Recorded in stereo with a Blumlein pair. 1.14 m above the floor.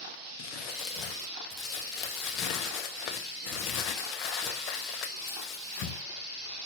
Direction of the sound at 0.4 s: 35° left.